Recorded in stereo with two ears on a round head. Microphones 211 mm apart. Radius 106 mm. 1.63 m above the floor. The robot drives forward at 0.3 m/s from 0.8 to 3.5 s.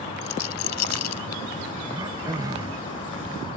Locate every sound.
0.2 s a rattle: 80° left
1.9 s throat clearing: 15° right (ahead or behind)